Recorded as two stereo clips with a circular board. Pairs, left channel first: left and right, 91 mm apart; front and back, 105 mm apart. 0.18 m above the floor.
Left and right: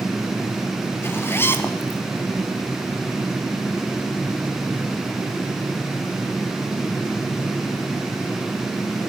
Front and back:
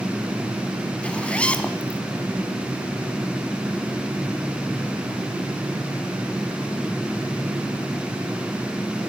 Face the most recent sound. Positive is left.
turn(degrees=65)